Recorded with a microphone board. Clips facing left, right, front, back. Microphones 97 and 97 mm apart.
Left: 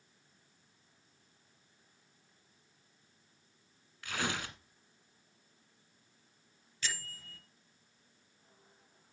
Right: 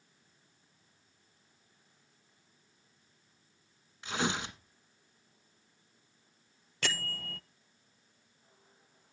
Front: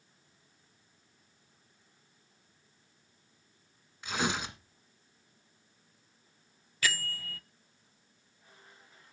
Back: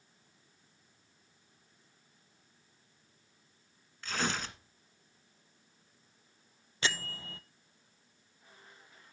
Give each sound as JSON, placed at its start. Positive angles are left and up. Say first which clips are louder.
{"t": 4.0, "sound": "tearing paper", "louder": "right 4 dB, front 2 dB", "azimuth_deg": -60, "distance_m": 1.4}
{"t": 6.8, "sound": "a bell", "louder": "right 6 dB, front 1 dB", "azimuth_deg": -115, "distance_m": 0.5}